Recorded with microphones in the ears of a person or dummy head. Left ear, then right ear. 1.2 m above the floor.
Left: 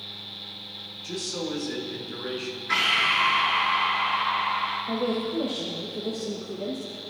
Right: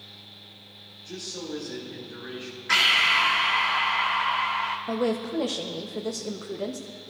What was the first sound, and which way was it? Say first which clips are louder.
A man speaking: left 4 dB; 70° left (ahead or behind).